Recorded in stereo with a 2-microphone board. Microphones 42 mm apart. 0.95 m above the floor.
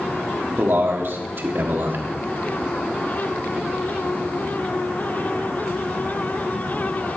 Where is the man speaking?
55° right (ahead or behind), 1.6 m.